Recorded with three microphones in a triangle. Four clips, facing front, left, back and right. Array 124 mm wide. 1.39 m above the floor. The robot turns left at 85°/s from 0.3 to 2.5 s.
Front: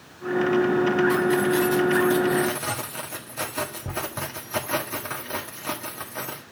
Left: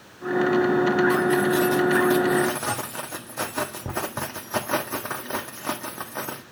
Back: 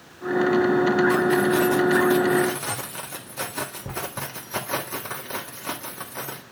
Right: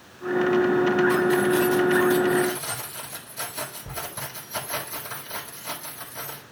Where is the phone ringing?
I don't hear a phone ringing.